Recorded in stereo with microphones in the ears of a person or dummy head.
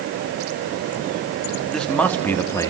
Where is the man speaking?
Centre (ahead or behind), 2.5 m; by 2.7 s 15° left (ahead or behind), 2.5 m.